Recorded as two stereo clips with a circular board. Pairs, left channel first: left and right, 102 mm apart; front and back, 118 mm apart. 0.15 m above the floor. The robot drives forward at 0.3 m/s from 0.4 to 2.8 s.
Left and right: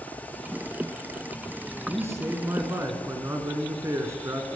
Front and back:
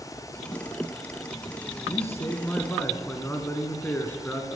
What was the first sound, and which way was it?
A man speaking, 50° right.